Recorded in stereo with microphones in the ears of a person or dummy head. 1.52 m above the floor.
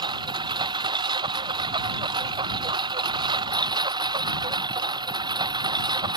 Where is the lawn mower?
20° right (ahead or behind).